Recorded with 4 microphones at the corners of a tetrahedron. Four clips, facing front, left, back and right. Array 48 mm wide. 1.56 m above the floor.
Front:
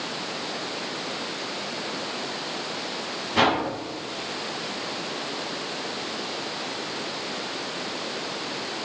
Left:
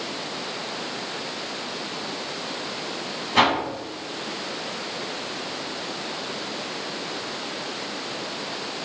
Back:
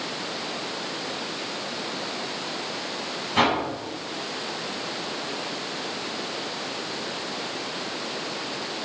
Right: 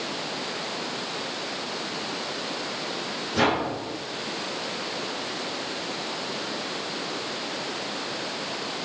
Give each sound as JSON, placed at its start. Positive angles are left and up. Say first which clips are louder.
{"t": 3.3, "sound": "a whoosh", "louder": "left 4 dB, front 1 dB", "azimuth_deg": 95, "distance_m": 7.0}